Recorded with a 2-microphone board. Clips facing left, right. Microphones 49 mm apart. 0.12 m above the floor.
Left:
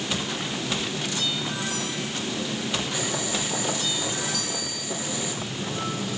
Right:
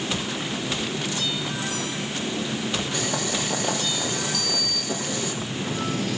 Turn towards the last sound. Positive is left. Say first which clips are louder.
# right 3 dB
turn(degrees=-55)  # may be behind; listen again after turning